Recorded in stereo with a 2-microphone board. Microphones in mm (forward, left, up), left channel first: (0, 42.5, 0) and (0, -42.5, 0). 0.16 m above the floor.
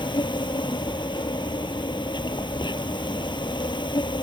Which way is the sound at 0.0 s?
65° left (ahead or behind).